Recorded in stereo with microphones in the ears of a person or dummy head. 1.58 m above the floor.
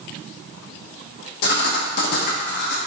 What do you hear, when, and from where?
1.4 s writing: 55° left (ahead or behind), 0.7 m